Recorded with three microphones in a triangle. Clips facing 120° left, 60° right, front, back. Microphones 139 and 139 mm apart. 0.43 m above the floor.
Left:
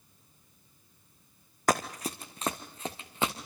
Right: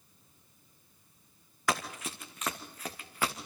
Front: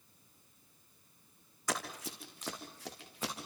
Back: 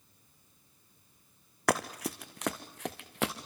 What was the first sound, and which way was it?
Running footsteps, 165° left.